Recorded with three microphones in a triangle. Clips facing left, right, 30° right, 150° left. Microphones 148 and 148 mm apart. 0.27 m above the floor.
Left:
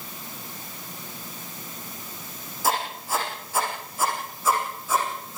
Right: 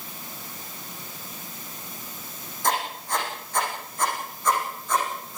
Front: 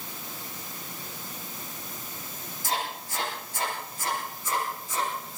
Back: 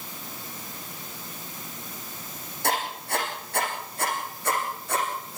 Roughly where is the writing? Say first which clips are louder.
Even, back 4 dB; behind.